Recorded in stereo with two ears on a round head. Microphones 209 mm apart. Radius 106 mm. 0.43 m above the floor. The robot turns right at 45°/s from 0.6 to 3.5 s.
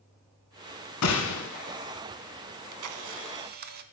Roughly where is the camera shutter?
Right.